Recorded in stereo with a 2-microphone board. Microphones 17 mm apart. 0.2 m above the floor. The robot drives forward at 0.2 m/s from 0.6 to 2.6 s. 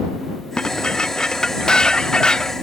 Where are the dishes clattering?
50° left (ahead or behind); by 2.5 s 45° left (ahead or behind).